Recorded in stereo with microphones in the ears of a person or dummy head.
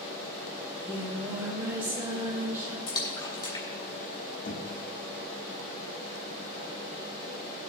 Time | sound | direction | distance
0.6 | singing | 15° right (ahead or behind) | 4 m
2.9 | a splash | 25° left (ahead or behind) | 3.5 m
4.5 | knocking | 40° left (ahead or behind) | 1.5 m